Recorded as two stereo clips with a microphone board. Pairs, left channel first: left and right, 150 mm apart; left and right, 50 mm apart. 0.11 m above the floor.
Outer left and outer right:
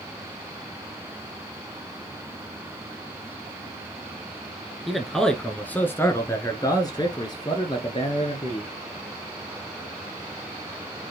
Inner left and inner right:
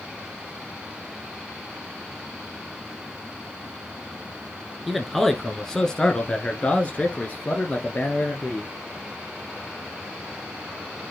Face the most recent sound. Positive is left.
turn(degrees=40)  # may be behind; listen again after turning